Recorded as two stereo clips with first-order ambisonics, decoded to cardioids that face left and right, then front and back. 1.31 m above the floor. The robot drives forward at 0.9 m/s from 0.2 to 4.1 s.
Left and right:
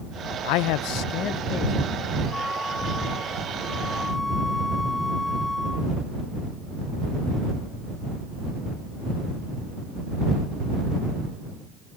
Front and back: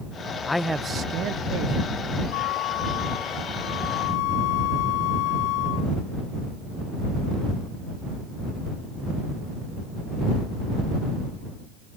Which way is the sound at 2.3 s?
5° left.